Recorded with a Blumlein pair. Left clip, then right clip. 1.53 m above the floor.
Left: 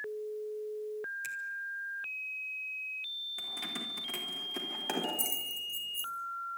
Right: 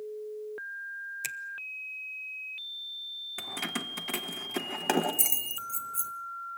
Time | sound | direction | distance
1.2 | a finger snap | 60° right | 0.9 m
3.4 | keys jangling | 25° right | 1.3 m